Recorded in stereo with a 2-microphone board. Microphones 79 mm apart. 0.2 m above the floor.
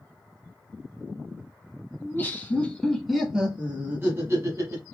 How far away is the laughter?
About 1.1 m.